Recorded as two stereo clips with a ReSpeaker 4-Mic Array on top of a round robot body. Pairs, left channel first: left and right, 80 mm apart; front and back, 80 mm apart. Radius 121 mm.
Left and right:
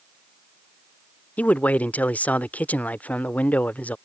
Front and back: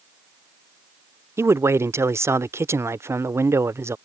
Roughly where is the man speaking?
Behind left.